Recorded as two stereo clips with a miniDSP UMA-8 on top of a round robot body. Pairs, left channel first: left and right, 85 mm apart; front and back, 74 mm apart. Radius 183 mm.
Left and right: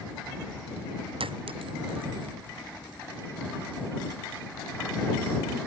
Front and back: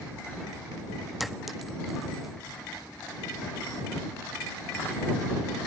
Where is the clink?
90° right.